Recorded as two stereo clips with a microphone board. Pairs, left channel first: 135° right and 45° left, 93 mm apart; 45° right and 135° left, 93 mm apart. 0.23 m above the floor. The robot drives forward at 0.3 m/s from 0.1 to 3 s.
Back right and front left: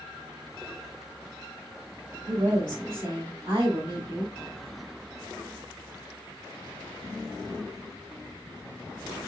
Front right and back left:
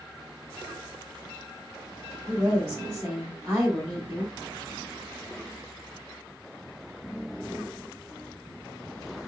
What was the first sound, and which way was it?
A woman speaking, 80° left.